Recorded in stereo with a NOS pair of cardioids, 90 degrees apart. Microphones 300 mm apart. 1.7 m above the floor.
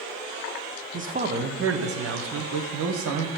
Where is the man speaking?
25° right, 1.1 m; by 3.3 s 75° right, 1.7 m.